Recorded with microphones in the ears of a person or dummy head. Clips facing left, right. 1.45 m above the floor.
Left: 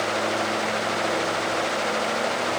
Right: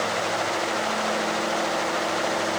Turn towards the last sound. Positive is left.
No sound to turn to.